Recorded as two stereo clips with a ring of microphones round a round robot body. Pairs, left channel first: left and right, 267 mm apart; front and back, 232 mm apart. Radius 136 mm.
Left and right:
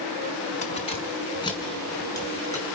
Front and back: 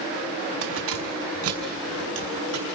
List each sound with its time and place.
0.6 s keys jangling: 155° left, 2.5 m; by 2.8 s 170° left, 5.5 m